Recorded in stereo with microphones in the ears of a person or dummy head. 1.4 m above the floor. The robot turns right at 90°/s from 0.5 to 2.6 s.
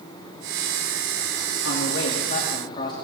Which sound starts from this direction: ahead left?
A man speaking, at 1.6 s.